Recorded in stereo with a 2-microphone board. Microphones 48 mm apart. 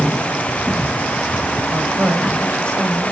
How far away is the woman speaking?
About 4 m.